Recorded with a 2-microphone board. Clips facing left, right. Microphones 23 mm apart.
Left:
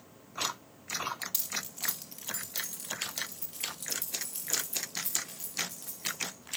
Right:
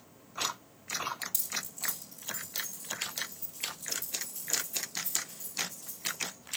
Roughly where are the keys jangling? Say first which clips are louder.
Left 1 dB; left.